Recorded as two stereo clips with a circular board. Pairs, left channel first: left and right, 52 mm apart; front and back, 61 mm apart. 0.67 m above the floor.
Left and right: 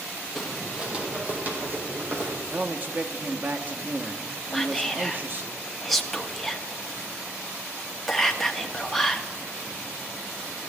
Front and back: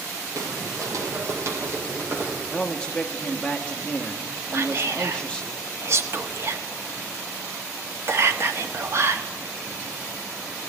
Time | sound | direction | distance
0.3 | footsteps | straight behind | 1.4 m
2.5 | a man speaking | 65° right | 0.7 m
4.5 | whispering | 175° left | 0.9 m